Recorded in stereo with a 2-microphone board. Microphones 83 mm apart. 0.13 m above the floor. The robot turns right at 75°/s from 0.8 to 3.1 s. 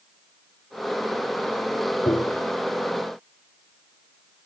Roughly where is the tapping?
Ahead left.